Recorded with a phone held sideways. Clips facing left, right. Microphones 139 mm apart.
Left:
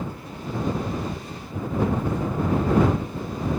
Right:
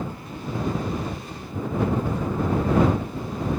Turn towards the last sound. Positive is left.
No sound to turn to.